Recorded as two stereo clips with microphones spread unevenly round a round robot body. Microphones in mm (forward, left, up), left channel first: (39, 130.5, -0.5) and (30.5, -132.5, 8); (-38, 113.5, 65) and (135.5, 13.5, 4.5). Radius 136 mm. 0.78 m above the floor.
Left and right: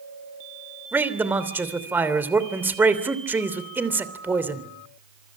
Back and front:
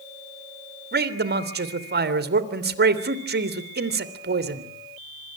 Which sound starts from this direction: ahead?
A man speaking, at 0.9 s.